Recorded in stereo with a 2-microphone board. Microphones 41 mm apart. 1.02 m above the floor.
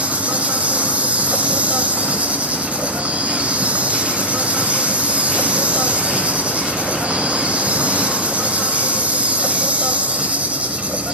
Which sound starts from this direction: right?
An insect, at 0.0 s.